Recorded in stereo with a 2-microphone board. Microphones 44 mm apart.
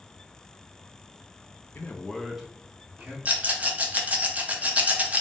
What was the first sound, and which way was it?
A man speaking, 50° left (ahead or behind).